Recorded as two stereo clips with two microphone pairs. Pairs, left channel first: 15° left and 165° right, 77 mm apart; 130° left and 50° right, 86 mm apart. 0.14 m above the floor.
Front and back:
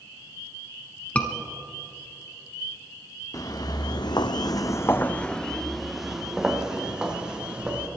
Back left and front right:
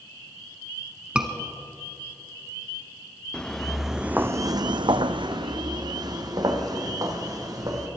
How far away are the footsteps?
About 1.2 m.